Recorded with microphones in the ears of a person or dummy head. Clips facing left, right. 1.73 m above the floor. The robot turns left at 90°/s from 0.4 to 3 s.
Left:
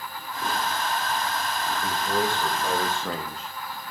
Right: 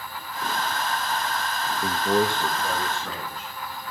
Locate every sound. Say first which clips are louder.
1.8 s a man speaking: right 5 dB; 115° right, 2.5 m; by 3.5 s 140° left, 2.5 m